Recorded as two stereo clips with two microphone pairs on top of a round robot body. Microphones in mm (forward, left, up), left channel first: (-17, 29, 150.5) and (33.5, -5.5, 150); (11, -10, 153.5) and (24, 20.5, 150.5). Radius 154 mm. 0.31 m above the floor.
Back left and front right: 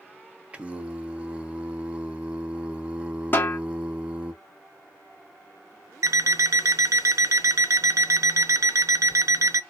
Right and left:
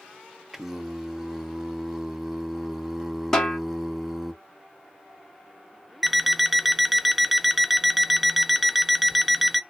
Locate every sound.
0.5 s singing: 5° left, 0.8 m
3.3 s a snare drum: 175° left, 1.1 m
6.0 s an alarm clock: 15° right, 0.6 m